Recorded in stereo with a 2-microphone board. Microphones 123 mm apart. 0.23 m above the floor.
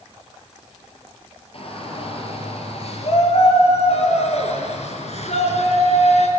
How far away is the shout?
About 5.5 m.